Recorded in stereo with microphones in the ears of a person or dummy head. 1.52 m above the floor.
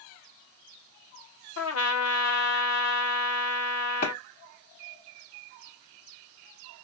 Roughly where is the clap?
Left.